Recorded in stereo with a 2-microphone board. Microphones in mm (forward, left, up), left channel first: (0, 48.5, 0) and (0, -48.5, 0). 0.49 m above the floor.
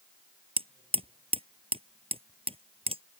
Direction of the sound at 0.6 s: 75° right (ahead or behind).